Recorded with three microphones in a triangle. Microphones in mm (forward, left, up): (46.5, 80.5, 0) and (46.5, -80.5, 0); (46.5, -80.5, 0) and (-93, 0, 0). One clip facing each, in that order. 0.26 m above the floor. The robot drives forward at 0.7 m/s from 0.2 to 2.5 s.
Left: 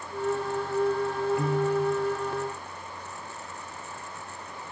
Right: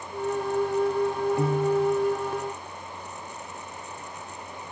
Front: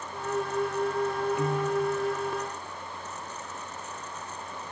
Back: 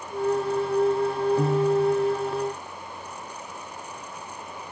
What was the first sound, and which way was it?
A piano, 155° right.